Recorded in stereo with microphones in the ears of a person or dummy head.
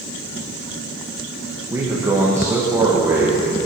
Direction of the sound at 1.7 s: 15° right (ahead or behind).